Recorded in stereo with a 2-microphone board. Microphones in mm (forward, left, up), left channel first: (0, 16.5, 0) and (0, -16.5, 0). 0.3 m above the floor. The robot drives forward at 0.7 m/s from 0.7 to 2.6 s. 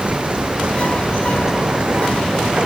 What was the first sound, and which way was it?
Running water, 45° right (ahead or behind).